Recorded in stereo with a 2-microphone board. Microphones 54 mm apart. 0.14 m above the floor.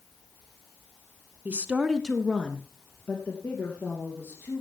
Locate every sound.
1.4 s a woman speaking: 30° right (ahead or behind), 1.2 m; by 4.6 s 40° left (ahead or behind), 4.5 m